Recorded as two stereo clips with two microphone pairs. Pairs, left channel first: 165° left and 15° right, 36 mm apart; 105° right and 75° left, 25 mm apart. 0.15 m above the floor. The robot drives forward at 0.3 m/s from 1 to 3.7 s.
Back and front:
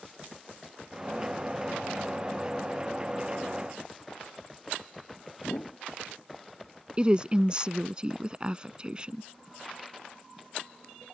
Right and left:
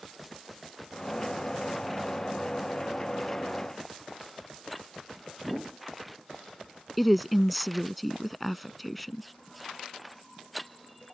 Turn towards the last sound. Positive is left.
turn(degrees=-15)